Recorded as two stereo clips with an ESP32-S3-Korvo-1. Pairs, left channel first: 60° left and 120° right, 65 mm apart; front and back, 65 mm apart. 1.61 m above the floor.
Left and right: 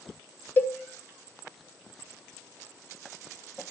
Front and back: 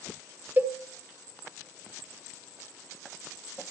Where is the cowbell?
115° left, 1.2 m.